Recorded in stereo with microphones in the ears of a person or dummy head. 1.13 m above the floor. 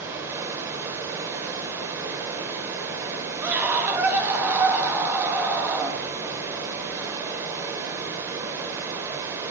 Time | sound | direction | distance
0.0 | running water | 20° right (ahead or behind) | 1.0 m
3.4 | a scream | 10° right (ahead or behind) | 1.1 m